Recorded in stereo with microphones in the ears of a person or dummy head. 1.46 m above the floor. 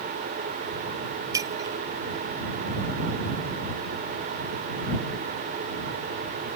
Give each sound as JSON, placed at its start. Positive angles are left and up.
{"t": 1.3, "sound": "breaking glass", "side_deg": -20}